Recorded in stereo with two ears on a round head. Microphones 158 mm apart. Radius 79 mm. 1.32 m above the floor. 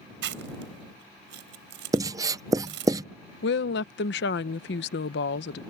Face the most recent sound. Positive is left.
turn(degrees=70)  # may be behind; listen again after turning